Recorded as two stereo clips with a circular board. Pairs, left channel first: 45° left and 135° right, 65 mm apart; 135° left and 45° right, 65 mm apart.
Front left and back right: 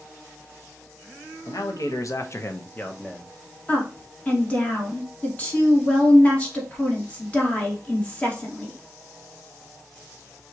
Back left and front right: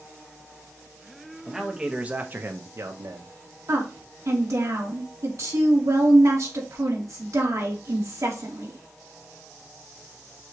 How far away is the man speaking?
About 1.1 m.